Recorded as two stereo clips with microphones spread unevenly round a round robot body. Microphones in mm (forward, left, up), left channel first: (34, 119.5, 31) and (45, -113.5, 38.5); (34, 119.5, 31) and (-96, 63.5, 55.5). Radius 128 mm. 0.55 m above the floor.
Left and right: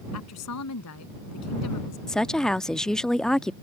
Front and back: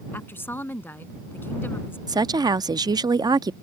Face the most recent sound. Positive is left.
turn(degrees=170)